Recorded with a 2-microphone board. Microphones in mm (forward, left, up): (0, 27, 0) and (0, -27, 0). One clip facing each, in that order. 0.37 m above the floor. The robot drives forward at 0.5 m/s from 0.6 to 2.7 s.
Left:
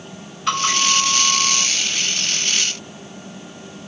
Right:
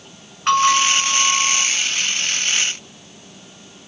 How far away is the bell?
About 2.5 m.